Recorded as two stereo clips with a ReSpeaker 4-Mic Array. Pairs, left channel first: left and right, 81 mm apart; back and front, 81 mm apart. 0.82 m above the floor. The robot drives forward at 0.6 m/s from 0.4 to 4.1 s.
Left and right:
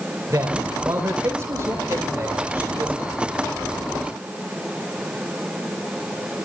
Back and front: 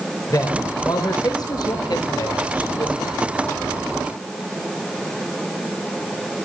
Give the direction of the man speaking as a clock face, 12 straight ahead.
5 o'clock.